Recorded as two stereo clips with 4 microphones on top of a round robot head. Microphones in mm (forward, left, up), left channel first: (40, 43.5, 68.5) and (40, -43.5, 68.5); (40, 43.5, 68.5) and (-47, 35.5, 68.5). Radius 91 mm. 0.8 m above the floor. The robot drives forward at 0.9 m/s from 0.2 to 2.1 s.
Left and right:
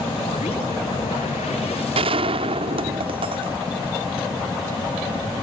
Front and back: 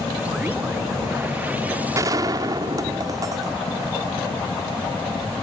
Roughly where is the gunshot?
Right.